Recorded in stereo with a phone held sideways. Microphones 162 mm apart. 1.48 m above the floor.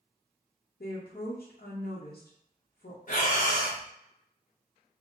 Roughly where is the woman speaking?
Left.